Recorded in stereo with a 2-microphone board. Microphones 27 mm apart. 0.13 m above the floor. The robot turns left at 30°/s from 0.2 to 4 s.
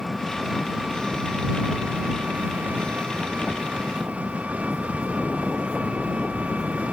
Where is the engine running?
5° right; by 6.9 s 120° right.